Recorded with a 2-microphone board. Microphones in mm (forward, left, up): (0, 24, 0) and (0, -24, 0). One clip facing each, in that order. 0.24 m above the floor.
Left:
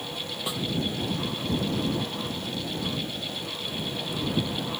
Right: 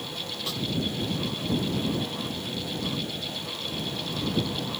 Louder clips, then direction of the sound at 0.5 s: Left 1 dB; 20° left (ahead or behind).